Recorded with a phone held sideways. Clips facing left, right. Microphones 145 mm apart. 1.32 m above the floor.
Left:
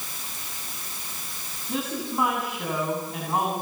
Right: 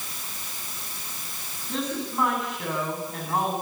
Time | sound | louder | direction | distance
1.7 | a woman speaking | even | 5° left (ahead or behind) | 9.5 m